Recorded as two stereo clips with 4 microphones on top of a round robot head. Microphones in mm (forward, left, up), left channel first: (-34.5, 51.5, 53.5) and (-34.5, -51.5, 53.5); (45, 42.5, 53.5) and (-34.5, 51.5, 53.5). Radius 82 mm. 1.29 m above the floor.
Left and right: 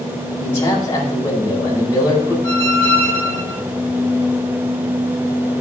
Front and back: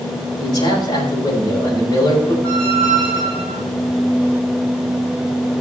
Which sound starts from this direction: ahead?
A man speaking, at 0.4 s.